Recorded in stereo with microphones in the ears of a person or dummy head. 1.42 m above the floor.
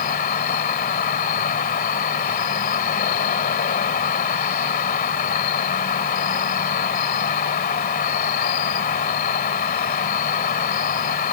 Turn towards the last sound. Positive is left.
turn(degrees=50)  # may be behind; listen again after turning